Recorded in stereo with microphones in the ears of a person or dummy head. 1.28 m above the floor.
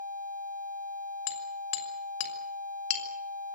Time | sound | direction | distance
1.3 | hammering | 85° left | 6 m